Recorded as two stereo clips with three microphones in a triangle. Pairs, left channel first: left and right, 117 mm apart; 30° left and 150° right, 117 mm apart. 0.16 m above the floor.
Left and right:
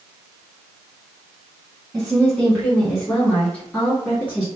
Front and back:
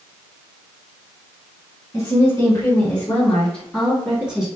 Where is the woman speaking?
5° left, 1.8 m; by 4.5 s 145° left, 1.6 m.